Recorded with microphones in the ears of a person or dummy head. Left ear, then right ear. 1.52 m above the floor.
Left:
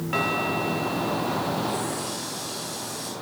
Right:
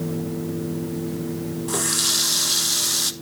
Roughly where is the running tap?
Right.